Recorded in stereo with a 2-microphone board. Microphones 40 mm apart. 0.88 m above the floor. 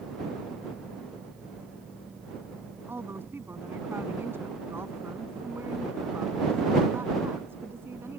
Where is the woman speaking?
85° right; by 8.2 s 70° right (ahead or behind).